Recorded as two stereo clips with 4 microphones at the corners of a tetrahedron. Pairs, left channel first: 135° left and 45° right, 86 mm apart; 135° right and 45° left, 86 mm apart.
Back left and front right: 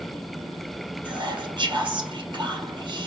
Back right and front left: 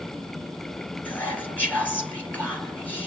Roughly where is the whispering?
Ahead right.